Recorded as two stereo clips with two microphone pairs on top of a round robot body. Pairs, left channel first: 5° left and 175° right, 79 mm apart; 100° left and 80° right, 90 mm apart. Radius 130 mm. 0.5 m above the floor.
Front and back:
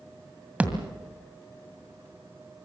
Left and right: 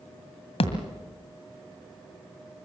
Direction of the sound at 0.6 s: 110° left.